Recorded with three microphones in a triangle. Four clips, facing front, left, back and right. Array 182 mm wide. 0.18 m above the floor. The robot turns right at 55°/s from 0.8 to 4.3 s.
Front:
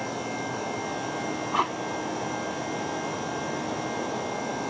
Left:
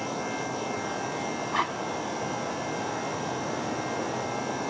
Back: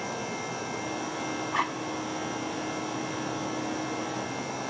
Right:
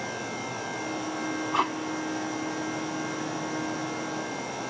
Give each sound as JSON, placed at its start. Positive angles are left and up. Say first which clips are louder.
{"t": 1.5, "sound": "tape being pulled", "louder": "right 2 dB, front 4 dB", "azimuth_deg": -35, "distance_m": 0.8}